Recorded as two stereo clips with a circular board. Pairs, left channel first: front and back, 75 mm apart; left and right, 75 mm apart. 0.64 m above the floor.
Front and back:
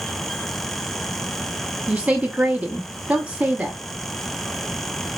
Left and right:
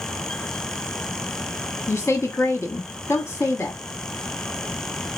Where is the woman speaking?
115° left, 0.9 m.